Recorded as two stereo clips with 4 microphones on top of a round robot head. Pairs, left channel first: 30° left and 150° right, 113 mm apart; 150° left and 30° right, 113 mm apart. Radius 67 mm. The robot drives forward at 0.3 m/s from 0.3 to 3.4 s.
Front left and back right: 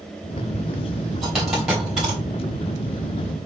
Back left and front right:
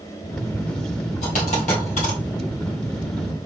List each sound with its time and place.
1.2 s a dropped coin: 125° left, 2.5 m; by 2.2 s 130° left, 2.5 m